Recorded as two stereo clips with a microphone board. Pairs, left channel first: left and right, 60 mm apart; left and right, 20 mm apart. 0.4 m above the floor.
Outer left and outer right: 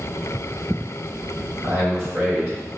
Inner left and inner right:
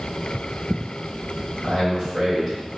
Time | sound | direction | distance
1.6 | a man speaking | 30° right (ahead or behind) | 1.6 m